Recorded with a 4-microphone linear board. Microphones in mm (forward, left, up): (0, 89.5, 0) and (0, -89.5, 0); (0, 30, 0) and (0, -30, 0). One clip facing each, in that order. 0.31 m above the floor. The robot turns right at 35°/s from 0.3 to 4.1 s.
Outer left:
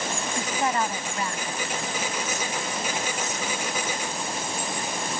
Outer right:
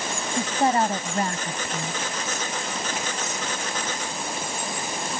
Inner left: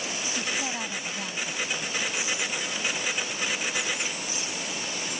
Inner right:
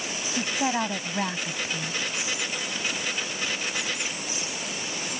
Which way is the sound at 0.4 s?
145° right.